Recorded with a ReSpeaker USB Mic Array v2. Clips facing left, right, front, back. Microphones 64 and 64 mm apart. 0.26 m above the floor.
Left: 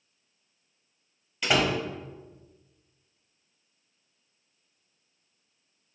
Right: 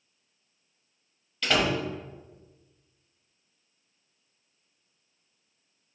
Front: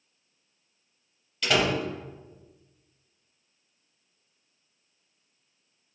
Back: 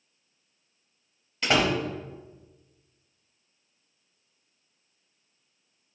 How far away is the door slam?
About 0.7 m.